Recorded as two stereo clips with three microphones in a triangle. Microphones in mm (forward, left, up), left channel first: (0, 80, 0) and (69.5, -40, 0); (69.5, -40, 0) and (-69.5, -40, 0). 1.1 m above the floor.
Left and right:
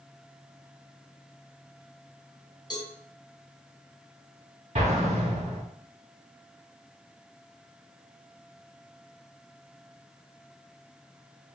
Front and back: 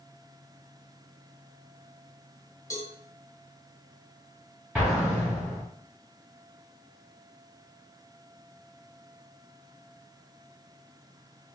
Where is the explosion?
95° right, 2.5 m.